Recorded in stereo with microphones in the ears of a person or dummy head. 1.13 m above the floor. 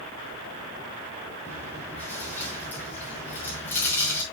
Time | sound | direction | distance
1.4 | chewing | 10° left (ahead or behind) | 6 m